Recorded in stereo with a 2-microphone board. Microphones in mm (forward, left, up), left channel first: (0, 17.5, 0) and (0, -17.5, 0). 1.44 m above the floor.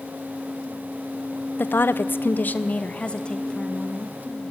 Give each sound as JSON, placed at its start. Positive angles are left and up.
{"t": 1.6, "sound": "a woman speaking", "side_deg": 65, "distance_m": 0.9}